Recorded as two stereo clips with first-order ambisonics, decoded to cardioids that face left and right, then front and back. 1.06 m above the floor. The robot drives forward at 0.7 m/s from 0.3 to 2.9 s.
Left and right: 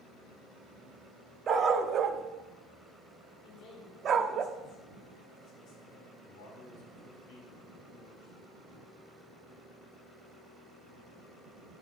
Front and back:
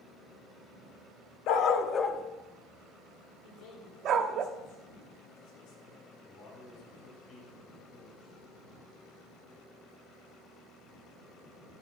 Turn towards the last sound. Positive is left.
turn(degrees=70)